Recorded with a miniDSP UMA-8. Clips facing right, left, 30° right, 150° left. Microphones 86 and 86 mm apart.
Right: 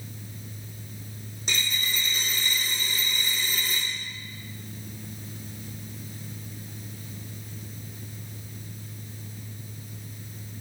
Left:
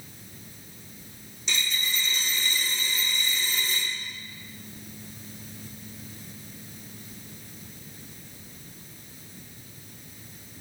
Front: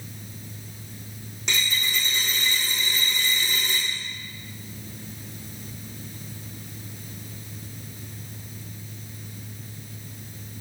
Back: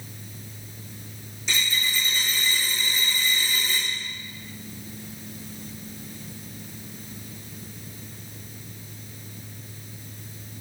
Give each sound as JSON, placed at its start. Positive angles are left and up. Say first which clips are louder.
{"t": 1.5, "sound": "a dropped coin", "louder": "even, even", "azimuth_deg": -50, "distance_m": 3.5}